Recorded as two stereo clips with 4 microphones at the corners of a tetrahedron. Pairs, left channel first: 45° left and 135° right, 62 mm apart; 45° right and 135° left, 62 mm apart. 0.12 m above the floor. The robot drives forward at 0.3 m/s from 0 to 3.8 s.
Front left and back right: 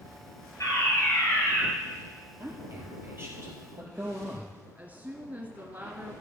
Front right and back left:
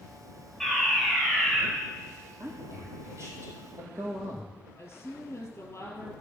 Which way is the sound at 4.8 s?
90° right.